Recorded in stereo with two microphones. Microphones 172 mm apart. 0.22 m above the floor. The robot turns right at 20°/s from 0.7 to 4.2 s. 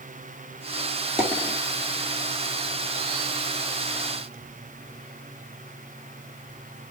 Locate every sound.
1.2 s a dropped coin: 10° right (ahead or behind), 2 m; by 1.6 s 20° right (ahead or behind), 2 m